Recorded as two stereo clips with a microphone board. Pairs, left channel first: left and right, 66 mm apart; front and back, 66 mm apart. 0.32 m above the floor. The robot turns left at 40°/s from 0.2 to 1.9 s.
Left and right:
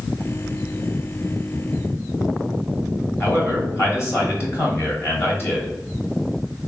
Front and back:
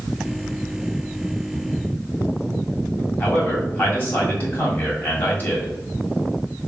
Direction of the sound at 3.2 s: 55° left.